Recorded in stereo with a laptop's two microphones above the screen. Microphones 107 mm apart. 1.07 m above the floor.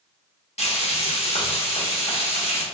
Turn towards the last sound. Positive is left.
turn(degrees=80)